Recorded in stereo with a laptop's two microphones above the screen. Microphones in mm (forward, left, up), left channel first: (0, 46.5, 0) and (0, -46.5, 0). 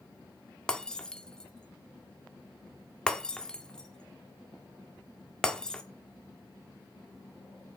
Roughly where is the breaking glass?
Centre.